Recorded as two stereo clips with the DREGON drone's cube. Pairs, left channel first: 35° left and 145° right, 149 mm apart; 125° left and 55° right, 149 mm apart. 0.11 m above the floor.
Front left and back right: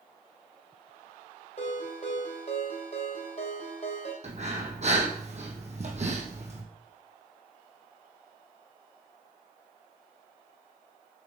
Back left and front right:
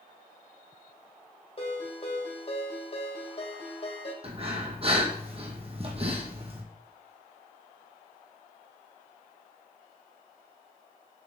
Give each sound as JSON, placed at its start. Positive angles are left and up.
{"t": 1.6, "sound": "a ringtone", "azimuth_deg": 75, "distance_m": 2.5}
{"t": 4.2, "sound": "breathing", "azimuth_deg": -105, "distance_m": 1.9}